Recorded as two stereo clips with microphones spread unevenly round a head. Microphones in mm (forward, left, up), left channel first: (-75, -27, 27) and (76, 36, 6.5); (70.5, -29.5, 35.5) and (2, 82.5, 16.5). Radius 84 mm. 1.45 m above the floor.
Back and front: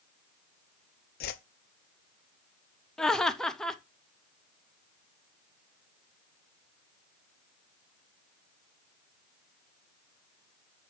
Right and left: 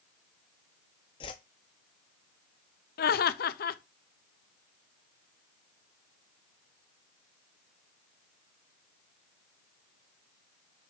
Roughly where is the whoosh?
Behind right.